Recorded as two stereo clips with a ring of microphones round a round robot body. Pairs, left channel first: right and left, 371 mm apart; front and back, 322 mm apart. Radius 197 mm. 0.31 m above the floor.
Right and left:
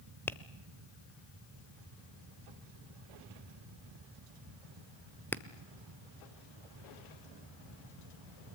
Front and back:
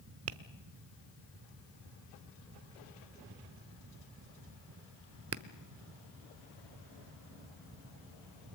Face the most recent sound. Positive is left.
turn(degrees=-170)